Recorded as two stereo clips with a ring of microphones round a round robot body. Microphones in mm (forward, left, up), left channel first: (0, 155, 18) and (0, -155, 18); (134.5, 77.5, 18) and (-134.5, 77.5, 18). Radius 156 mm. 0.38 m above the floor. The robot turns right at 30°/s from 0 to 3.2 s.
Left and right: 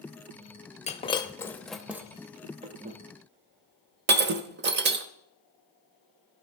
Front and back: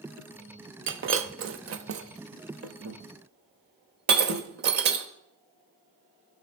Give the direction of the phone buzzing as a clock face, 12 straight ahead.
I don't hear a phone buzzing.